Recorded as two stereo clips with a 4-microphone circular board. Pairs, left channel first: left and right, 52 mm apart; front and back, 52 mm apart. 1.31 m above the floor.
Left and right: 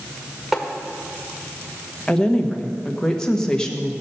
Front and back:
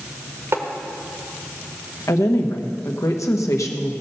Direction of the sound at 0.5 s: 170° right.